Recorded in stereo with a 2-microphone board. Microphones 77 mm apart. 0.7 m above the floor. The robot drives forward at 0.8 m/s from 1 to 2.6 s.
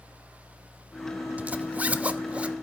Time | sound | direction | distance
1.4 | a zipper | 20° right (ahead or behind) | 1.0 m